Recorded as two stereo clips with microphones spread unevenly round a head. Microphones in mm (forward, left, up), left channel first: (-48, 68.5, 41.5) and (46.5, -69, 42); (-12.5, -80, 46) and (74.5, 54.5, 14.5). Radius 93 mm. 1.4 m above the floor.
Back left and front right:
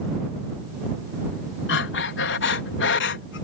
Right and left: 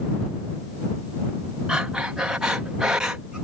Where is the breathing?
140° left.